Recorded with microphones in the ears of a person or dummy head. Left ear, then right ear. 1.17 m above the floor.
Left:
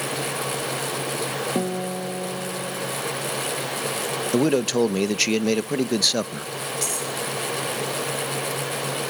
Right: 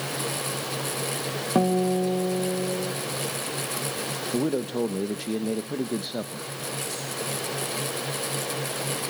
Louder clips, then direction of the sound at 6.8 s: Left 5 dB; 45° left (ahead or behind).